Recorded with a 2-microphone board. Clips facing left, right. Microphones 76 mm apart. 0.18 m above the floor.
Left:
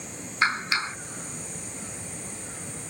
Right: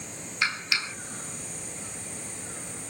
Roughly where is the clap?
Left.